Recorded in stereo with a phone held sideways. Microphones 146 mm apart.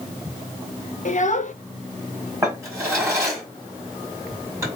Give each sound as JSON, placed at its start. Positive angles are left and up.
{"t": 1.1, "sound": "a child speaking", "side_deg": 60, "distance_m": 0.7}
{"t": 2.4, "sound": "a drawer", "side_deg": -20, "distance_m": 2.0}